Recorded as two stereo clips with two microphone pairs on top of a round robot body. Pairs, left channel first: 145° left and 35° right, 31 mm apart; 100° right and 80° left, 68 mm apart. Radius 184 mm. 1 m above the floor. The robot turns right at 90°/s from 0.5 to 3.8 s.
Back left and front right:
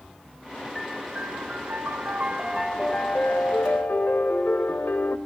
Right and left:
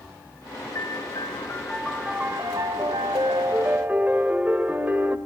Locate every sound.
0.8 s a piano: 120° right, 0.7 m; by 5.2 s 150° left, 0.7 m